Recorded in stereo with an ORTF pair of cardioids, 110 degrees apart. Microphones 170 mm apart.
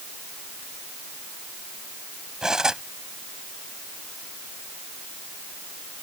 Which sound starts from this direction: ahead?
Cutlery clinking, at 2.4 s.